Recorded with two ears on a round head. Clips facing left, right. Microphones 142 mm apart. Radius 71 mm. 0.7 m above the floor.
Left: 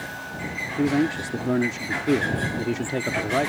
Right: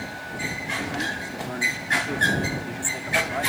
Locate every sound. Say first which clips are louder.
0.8 s a man speaking: left 12 dB; 60° left (ahead or behind)